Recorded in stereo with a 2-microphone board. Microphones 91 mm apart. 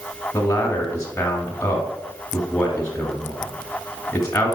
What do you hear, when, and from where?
0.3 s a man speaking: 10° left (ahead or behind), 1.5 m